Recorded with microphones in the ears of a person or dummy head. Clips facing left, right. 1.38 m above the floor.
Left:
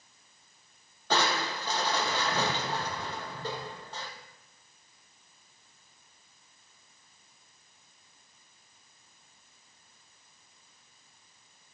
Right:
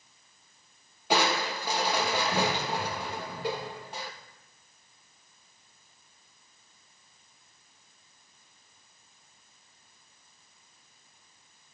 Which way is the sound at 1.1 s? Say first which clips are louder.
Right 2 dB; 20° right (ahead or behind).